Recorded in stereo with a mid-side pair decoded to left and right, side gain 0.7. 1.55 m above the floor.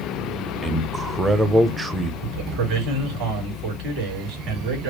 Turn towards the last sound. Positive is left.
turn(degrees=-60)